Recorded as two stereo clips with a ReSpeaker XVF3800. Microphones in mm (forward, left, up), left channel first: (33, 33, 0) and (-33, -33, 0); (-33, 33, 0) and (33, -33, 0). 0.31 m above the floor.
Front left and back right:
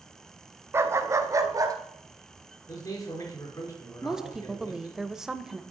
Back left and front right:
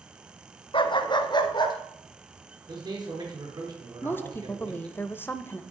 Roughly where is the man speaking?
Ahead.